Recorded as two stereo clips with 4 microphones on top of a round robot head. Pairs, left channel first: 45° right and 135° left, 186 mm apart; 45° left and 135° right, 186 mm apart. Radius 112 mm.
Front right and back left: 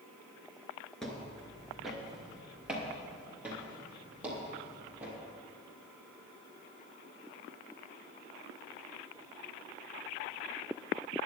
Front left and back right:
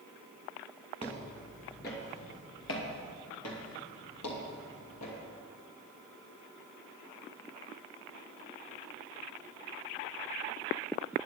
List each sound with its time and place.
1.0 s footsteps: 35° left, 1.7 m; by 5.2 s 50° left, 4 m